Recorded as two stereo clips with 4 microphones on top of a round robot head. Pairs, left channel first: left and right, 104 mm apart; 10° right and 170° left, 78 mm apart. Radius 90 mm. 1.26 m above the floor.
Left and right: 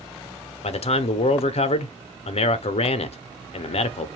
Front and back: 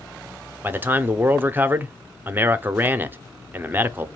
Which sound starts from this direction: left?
A man speaking, at 0.6 s.